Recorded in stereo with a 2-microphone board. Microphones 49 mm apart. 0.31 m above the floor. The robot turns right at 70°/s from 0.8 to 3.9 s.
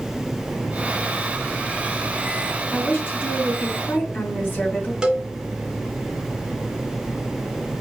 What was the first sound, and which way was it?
A woman speaking, 40° left.